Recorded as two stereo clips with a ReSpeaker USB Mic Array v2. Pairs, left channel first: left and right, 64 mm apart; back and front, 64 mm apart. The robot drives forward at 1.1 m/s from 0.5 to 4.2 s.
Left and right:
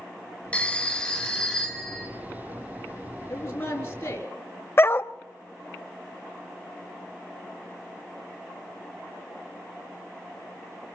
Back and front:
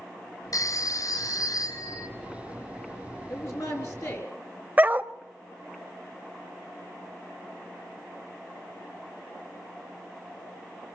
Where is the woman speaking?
140° left, 6 m; by 4.3 s 145° left, 6.5 m.